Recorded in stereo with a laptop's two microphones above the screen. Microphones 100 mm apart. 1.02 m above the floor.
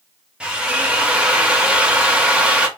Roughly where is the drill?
Centre.